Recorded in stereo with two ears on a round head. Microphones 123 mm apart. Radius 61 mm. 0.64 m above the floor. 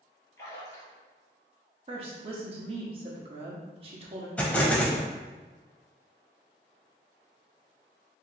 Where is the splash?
25° left (ahead or behind), 1.8 m.